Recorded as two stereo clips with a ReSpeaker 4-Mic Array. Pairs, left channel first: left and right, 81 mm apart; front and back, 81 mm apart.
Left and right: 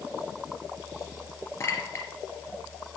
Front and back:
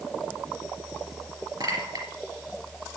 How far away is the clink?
About 3.5 m.